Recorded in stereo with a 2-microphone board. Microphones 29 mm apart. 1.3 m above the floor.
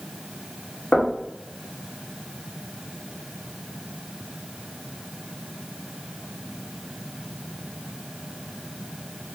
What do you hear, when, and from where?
0.9 s knocking: 25° left (ahead or behind), 1.3 m